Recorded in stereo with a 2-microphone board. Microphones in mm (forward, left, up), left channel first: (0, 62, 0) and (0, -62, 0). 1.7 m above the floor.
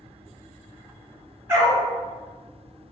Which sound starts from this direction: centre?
A dog barking, at 1.5 s.